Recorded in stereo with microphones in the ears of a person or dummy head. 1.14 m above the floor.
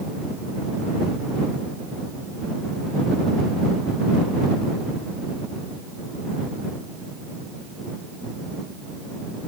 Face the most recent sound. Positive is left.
No sound to turn to.